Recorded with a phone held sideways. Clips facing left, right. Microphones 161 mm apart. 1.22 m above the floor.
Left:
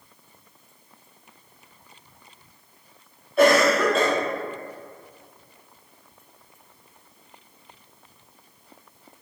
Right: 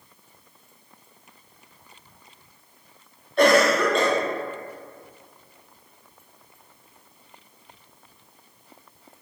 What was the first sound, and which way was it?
A cough, 5° left (ahead or behind).